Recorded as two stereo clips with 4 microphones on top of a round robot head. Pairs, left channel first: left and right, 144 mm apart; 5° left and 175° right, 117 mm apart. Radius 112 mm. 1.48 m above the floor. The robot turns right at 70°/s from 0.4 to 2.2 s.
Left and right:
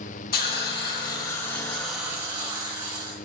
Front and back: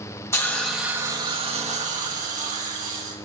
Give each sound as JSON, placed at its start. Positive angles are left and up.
{"t": 0.3, "sound": "a hiss", "azimuth_deg": 75, "distance_m": 2.0}